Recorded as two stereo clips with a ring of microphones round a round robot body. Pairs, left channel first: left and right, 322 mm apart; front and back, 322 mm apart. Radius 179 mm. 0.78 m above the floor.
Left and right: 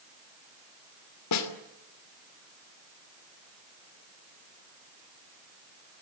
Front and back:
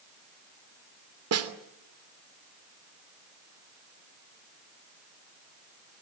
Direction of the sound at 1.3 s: 135° left.